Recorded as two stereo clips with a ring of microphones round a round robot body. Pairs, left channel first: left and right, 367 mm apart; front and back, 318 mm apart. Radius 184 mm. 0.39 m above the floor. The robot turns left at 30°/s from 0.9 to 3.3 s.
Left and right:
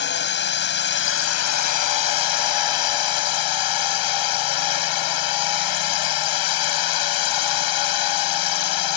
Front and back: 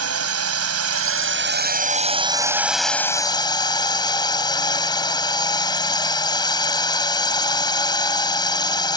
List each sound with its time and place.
0.0 s a drone: 145° left; by 9.0 s 75° left